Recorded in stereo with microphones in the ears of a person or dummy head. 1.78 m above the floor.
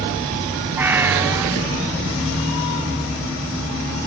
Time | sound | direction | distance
0.8 | a cat meowing | 10° right (ahead or behind) | ?